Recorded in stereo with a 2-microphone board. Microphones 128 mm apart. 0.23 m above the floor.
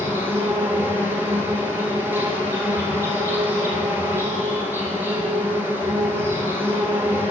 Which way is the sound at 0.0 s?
15° right (ahead or behind).